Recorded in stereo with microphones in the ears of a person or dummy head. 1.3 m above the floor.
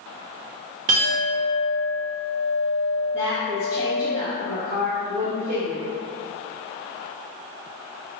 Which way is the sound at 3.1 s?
40° right (ahead or behind).